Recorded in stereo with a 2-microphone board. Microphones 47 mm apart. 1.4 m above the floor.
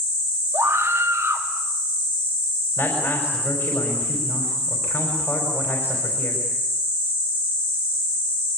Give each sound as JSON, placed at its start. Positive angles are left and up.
{"t": 0.5, "sound": "a scream", "side_deg": -85, "distance_m": 3.0}
{"t": 2.8, "sound": "a man speaking", "side_deg": 55, "distance_m": 4.5}